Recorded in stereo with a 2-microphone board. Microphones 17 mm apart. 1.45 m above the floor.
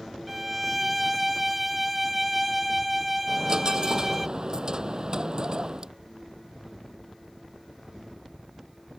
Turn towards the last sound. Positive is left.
turn(degrees=-40)  # may be behind; listen again after turning